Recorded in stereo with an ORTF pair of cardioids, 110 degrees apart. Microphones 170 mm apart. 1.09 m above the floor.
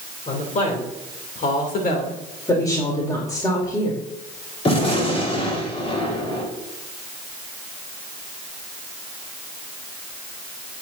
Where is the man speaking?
45° left, 3.5 m; by 2.2 s 60° left, 3 m.